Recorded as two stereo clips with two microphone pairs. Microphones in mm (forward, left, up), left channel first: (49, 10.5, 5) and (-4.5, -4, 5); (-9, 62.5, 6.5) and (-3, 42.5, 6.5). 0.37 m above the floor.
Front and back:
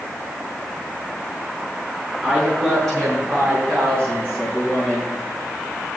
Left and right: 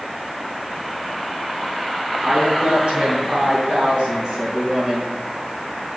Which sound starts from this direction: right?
A woman speaking, at 2.2 s.